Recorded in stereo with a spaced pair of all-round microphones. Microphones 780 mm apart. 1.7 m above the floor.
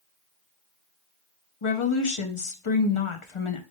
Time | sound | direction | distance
1.6 | a woman speaking | 40° left (ahead or behind) | 0.8 m